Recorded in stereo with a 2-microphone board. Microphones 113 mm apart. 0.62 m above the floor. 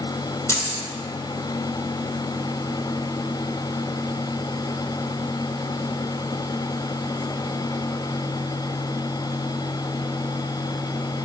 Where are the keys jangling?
25° left (ahead or behind), 1.1 m.